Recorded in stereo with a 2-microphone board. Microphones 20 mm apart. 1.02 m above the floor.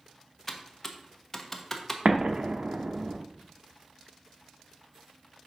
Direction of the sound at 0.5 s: 5° left (ahead or behind).